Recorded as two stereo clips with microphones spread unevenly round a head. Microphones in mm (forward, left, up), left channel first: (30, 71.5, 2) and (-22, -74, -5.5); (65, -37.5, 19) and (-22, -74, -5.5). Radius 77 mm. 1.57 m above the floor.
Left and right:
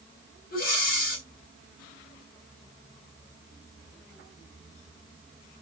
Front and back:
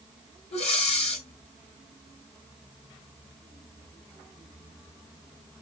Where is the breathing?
40° left, 3 m.